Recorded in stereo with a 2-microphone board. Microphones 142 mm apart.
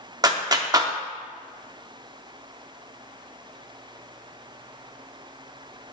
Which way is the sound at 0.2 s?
25° right (ahead or behind).